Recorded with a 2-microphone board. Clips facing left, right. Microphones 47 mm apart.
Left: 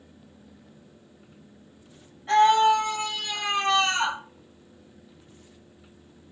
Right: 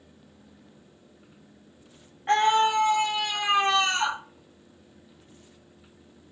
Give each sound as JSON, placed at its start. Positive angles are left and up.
{"t": 2.3, "sound": "a scream", "side_deg": -40, "distance_m": 1.0}